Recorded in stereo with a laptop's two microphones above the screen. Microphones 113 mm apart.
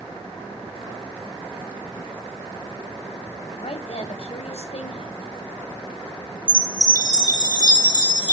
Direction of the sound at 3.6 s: 60° left (ahead or behind).